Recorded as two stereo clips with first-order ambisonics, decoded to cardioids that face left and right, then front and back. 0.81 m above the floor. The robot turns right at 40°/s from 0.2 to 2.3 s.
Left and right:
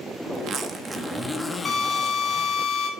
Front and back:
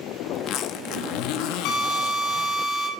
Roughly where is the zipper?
Ahead right.